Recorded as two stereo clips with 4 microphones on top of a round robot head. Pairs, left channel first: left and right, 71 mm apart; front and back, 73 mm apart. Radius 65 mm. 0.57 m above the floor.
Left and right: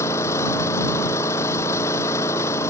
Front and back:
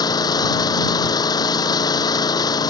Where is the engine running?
30° left.